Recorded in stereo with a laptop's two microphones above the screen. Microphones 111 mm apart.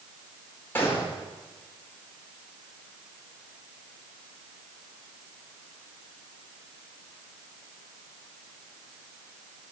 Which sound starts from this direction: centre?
A gunshot, at 0.8 s.